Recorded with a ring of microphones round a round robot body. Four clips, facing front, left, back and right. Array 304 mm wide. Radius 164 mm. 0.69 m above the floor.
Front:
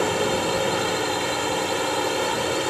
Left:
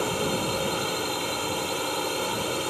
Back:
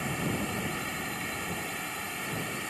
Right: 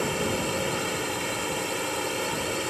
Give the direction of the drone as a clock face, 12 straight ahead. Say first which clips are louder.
Left 1 dB, front 11 dB; 12 o'clock.